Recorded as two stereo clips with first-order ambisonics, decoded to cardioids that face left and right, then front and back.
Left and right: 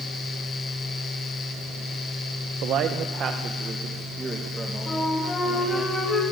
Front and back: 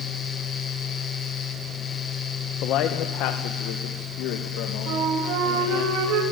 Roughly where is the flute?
Behind.